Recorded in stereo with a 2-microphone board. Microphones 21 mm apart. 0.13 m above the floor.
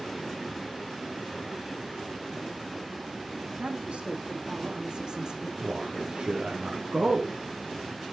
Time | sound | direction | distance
3.6 | a woman speaking | 70° right (ahead or behind) | 6 m
5.6 | a man speaking | 50° right (ahead or behind) | 3.5 m